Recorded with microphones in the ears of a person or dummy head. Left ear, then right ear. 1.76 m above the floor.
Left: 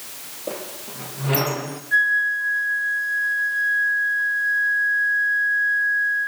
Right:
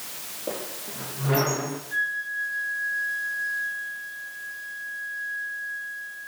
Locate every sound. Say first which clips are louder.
0.5 s a squeak: left 2 dB; 20° left (ahead or behind), 1.0 m
1.9 s a flute: left 10 dB; 50° left (ahead or behind), 1.6 m